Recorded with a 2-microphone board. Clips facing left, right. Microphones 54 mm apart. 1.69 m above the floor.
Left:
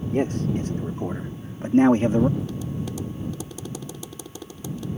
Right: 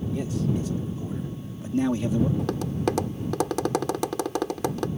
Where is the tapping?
70° right (ahead or behind).